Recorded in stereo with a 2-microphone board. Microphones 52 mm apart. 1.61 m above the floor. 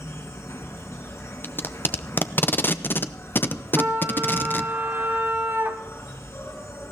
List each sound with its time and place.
0.0 s an insect: 65° left (ahead or behind), 4 m
1.4 s tape being pulled: 40° left (ahead or behind), 0.6 m
3.8 s a trumpet: 45° right (ahead or behind), 1.8 m